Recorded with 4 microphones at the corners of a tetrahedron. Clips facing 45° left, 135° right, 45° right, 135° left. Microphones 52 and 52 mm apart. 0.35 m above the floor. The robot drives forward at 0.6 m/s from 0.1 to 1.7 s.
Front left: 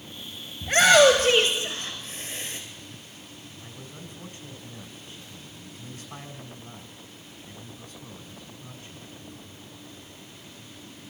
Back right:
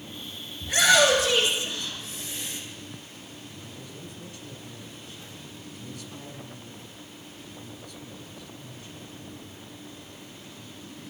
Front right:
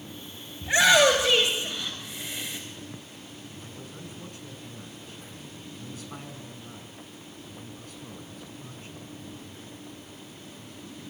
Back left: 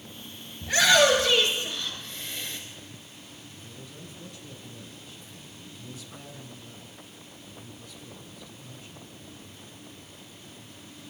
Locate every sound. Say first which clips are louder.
0.6 s a shout: front left 4 dB, front right 1 dB; 15° left, 2.5 m; by 2.6 s 25° left, 2.0 m
3.6 s a man speaking: back right 1 dB, front right 3 dB; 5° right, 3 m